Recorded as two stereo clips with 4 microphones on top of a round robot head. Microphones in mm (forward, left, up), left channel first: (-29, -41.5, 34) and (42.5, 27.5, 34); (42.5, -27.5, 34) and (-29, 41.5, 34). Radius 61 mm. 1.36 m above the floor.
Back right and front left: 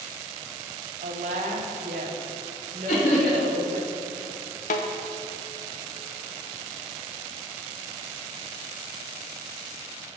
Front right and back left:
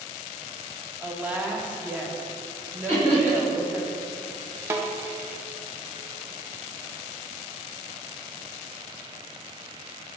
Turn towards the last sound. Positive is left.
turn(degrees=-155)